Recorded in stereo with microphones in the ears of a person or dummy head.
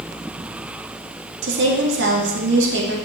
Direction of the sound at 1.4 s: 65° right (ahead or behind).